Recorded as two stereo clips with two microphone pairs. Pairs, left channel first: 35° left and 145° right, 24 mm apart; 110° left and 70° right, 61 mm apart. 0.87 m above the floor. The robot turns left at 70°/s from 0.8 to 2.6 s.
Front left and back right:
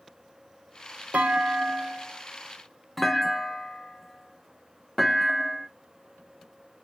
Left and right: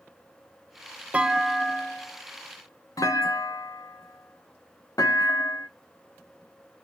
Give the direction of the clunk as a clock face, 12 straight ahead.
5 o'clock.